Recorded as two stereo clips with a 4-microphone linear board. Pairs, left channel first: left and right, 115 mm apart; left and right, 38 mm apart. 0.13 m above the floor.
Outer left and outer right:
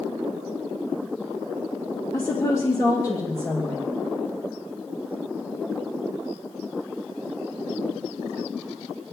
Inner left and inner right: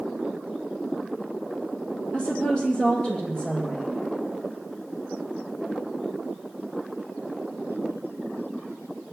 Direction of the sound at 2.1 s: 30° left (ahead or behind).